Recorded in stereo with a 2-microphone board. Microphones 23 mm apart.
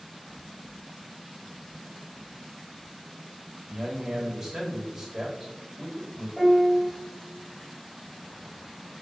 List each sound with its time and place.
3.7 s a man speaking: 35° right (ahead or behind), 1.6 m
6.4 s a piano: 5° left (ahead or behind), 1.5 m